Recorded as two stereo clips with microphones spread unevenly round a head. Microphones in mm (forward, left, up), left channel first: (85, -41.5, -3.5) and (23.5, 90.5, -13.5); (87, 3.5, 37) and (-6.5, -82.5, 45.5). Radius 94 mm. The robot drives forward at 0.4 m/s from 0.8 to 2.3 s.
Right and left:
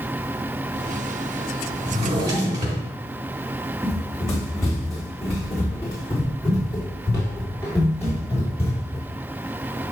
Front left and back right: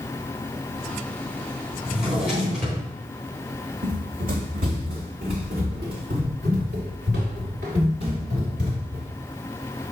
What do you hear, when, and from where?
1.9 s a drawer: 135° left, 3.5 m
3.8 s running footsteps: 145° right, 2 m; by 9.1 s 165° right, 6 m